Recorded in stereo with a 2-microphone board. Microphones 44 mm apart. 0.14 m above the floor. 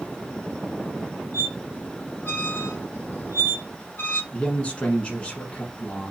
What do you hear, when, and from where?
1.3 s a squeak: 55° left (ahead or behind), 1.5 m
4.3 s a man speaking: 25° left (ahead or behind), 1.1 m